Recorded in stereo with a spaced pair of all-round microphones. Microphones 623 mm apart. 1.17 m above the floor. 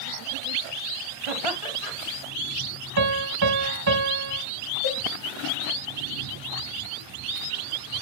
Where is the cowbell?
40° left (ahead or behind), 1.5 m.